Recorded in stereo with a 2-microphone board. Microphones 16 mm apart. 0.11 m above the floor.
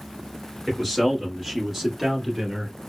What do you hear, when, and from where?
0.7 s a man speaking: centre (ahead or behind), 1.5 m; by 2.8 s 20° right (ahead or behind), 1.4 m